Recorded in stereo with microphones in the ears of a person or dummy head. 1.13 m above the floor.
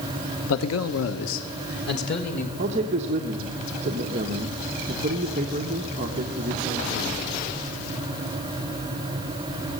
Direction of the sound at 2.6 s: 40° right (ahead or behind).